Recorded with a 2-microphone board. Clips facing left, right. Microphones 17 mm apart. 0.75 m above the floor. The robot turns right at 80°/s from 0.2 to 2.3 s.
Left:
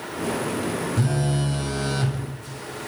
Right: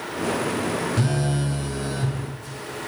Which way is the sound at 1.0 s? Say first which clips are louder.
Even; 30° right.